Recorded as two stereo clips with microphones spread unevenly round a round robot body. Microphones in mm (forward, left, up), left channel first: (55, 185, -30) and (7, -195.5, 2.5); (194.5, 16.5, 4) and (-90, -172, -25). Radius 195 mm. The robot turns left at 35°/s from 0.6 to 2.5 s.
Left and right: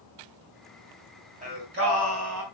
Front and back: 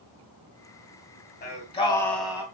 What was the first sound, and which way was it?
Singing, 25° right.